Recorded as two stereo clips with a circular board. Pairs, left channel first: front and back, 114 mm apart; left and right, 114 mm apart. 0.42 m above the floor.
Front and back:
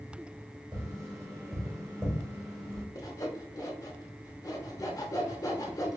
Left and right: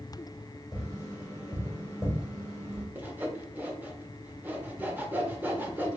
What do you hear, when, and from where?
0.7 s tapping: 135° left, 1.4 m
3.0 s sawing: 30° right, 0.6 m